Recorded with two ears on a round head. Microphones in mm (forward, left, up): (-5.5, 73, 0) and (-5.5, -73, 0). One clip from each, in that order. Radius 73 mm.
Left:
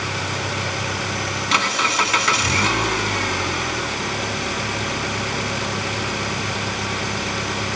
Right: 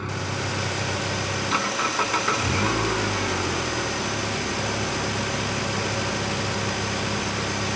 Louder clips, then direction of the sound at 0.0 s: Left 5 dB; 60° left (ahead or behind).